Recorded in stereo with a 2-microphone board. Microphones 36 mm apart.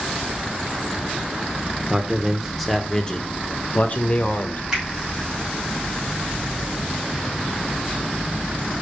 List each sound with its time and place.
1.9 s a man speaking: 20° right (ahead or behind), 1.0 m; by 4.6 s 50° left (ahead or behind), 1.4 m
4.7 s a finger snap: 15° right (ahead or behind), 4.5 m